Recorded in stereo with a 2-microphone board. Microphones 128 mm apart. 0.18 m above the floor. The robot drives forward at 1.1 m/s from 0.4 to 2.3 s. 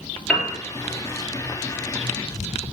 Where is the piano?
Centre (ahead or behind), 4.5 m.